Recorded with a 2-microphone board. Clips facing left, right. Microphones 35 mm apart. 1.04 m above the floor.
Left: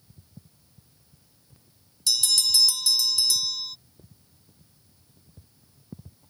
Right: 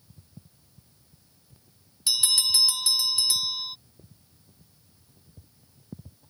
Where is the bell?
25° right (ahead or behind).